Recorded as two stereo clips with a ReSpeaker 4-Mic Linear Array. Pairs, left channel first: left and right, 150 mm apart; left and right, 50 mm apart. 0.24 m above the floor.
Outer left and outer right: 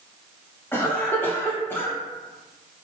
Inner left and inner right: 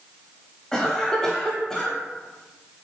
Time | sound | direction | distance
0.7 | a cough | 15° left (ahead or behind) | 1.0 m